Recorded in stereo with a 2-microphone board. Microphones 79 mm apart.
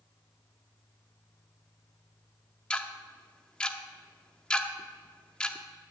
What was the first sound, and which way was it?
Ticking, 15° left (ahead or behind).